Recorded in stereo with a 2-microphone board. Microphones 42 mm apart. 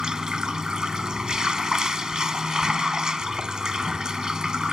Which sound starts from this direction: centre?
Running water, at 0.0 s.